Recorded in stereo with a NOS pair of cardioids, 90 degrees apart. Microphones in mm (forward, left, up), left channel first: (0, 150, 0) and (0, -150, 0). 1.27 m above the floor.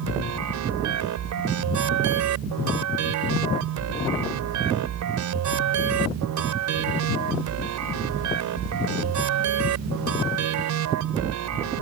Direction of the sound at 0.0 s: 70° right.